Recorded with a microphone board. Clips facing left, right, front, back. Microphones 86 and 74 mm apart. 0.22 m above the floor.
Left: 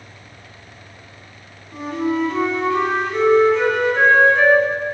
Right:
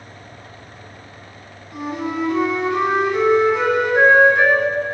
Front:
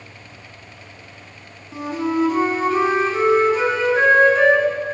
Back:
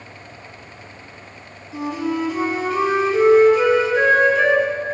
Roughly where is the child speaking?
No child speaking in this recording.